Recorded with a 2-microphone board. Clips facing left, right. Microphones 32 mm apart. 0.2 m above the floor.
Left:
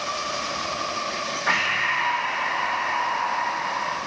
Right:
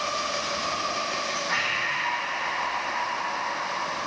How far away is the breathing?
About 9.5 m.